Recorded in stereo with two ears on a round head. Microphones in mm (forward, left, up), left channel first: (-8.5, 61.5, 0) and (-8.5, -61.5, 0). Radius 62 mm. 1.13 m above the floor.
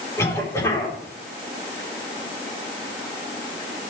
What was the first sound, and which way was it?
A cough, 20° left (ahead or behind).